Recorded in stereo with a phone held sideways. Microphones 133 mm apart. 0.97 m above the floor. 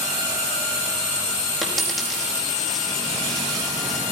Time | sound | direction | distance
1.6 | a dropped coin | centre (ahead or behind) | 5 m